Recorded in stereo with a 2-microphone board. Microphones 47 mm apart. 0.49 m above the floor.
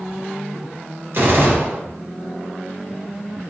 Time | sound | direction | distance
1.1 | a gunshot | 55° right (ahead or behind) | 1.4 m